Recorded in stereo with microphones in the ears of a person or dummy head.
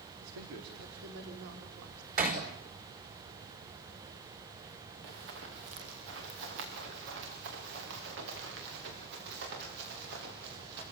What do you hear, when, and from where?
0.2 s a woman speaking: 80° right, 3.5 m; by 2.1 s 70° right (ahead or behind), 5 m
2.2 s hammering: 45° right (ahead or behind), 4.5 m
5.0 s running footsteps: 70° right (ahead or behind), 6 m; by 10.8 s 60° right (ahead or behind), 11 m